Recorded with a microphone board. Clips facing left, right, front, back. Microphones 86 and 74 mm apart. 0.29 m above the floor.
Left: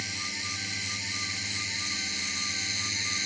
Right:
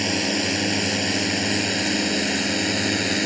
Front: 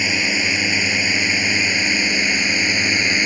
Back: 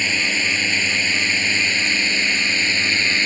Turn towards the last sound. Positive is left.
turn(degrees=-75)